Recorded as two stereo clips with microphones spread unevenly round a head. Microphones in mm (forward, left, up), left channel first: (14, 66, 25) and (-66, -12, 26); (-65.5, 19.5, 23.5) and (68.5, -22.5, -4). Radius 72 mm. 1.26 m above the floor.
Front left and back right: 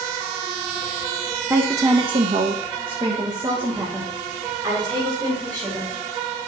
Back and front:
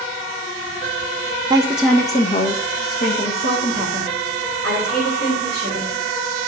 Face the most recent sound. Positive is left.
turn(degrees=170)